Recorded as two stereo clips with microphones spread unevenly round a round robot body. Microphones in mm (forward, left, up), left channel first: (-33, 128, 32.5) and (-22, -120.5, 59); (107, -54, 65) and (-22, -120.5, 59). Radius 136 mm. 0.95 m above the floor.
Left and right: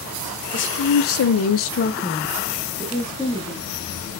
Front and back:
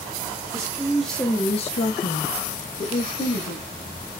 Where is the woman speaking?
135° left, 0.8 m; by 3.7 s straight ahead, 1.4 m.